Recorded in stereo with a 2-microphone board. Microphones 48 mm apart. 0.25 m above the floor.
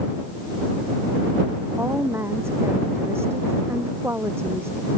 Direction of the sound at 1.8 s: 65° right (ahead or behind).